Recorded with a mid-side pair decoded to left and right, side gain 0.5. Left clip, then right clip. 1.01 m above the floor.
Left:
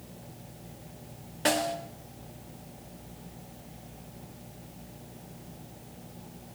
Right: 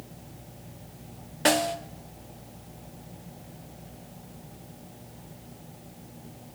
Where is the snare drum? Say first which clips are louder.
Right 4 dB; 25° right, 1.7 m.